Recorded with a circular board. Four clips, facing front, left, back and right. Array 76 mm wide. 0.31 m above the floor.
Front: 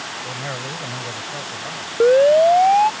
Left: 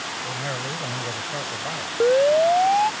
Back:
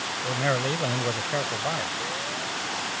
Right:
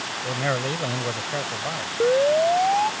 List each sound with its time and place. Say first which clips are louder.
0.2 s a man speaking: right 7 dB, back 7 dB; 125° right; by 1.9 s 170° right
2.0 s a siren: left 2 dB, front 21 dB; 5° left